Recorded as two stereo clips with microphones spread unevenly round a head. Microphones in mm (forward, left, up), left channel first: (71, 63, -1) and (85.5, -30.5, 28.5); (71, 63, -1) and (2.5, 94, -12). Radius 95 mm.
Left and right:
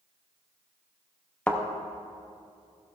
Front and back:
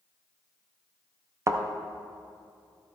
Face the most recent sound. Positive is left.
turn(degrees=-160)